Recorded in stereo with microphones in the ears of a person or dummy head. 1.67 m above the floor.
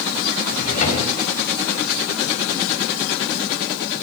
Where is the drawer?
40° left (ahead or behind), 4 m.